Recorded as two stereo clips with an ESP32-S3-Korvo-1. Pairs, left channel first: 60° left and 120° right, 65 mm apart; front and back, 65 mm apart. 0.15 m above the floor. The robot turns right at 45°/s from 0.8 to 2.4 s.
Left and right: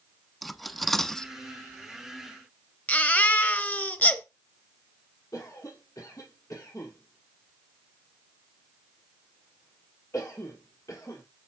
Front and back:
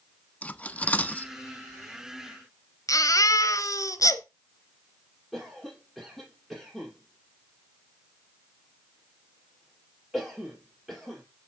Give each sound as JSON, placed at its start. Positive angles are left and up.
{"t": 0.4, "sound": "cutlery clinking", "azimuth_deg": -30, "distance_m": 0.6}
{"t": 2.9, "sound": "a baby crying", "azimuth_deg": 0, "distance_m": 1.0}
{"t": 5.3, "sound": "a cough", "azimuth_deg": 95, "distance_m": 4.0}